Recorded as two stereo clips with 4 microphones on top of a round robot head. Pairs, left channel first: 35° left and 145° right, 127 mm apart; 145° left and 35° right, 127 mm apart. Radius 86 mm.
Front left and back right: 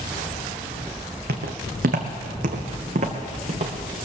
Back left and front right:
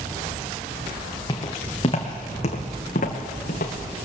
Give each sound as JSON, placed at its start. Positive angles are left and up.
{"t": 1.3, "sound": "footsteps", "azimuth_deg": -155, "distance_m": 1.9}